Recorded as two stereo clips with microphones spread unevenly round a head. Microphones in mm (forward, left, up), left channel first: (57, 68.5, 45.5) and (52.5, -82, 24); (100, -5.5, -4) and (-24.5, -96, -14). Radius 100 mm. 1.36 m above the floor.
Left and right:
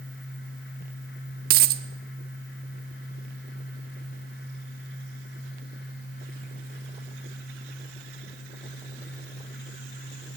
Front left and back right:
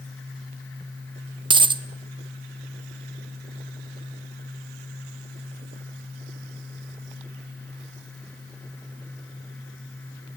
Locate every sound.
1.5 s a dropped coin: 95° right, 1.0 m